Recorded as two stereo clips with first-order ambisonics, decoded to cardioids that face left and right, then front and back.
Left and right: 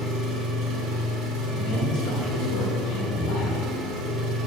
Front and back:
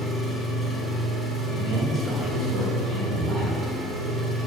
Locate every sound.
0.0 s an engine running: 105° right, 1.4 m
1.5 s a man speaking: 115° left, 2 m